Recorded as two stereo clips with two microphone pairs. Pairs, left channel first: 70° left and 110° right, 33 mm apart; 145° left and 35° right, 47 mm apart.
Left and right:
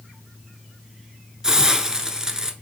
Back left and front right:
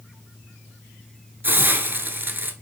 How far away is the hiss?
About 0.8 m.